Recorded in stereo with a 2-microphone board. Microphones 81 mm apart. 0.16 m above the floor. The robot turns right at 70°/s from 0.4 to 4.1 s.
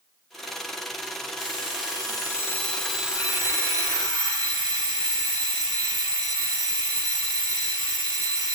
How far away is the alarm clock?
About 3 m.